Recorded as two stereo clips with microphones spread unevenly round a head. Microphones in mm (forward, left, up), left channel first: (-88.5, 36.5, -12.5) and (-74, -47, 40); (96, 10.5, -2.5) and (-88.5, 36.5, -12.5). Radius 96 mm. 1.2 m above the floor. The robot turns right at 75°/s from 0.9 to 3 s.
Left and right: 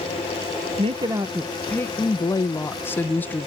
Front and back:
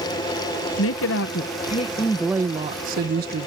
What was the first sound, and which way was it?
A woman speaking, 15° right.